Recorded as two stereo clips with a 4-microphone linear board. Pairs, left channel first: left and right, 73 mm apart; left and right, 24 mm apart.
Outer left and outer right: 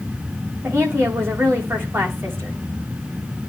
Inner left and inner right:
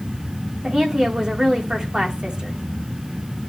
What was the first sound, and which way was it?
A woman speaking, 30° right (ahead or behind).